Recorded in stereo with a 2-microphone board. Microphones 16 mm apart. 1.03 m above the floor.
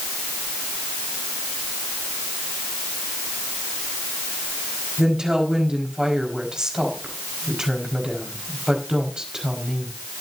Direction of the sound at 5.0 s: 45° right (ahead or behind).